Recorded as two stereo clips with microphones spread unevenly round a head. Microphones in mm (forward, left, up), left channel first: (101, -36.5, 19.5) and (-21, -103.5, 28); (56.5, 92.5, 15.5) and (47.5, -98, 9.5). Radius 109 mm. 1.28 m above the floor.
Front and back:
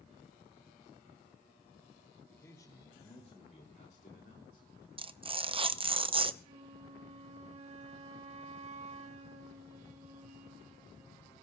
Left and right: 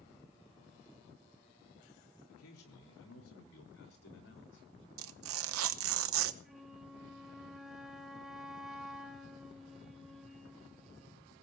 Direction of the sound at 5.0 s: 95° right.